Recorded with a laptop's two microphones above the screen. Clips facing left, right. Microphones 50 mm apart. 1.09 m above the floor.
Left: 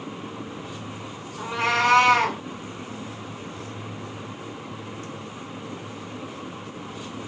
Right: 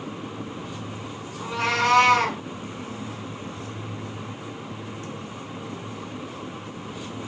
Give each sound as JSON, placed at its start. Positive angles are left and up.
{"t": 1.4, "sound": "a cat meowing", "side_deg": 30, "distance_m": 0.8}